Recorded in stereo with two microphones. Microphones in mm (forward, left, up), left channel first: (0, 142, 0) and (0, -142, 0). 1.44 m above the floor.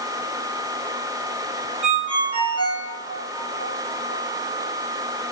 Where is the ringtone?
80° left, 4 m.